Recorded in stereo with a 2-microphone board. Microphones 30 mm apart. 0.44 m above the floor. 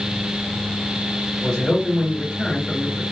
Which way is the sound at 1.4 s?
20° left (ahead or behind).